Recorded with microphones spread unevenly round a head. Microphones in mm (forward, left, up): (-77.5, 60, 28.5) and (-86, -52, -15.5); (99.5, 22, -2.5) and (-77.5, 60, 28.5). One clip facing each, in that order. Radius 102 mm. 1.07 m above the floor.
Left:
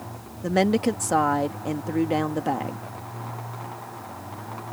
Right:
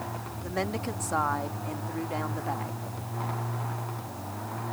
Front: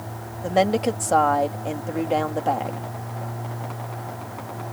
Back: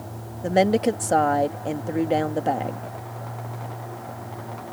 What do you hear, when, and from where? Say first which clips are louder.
0.4 s a woman speaking: left 11 dB, back 1 dB; 95° left